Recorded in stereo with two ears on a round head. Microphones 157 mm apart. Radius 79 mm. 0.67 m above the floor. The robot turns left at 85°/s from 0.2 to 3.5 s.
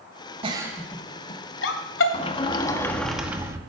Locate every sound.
0.4 s a giggle: 30° right (ahead or behind), 2 m; by 2.0 s 75° left (ahead or behind), 2 m
2.1 s a sliding door: 85° left, 1.2 m; by 3.6 s 30° right, 1.2 m